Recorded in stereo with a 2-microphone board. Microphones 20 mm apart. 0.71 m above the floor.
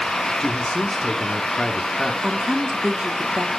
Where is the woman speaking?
55° right (ahead or behind), 1.6 m.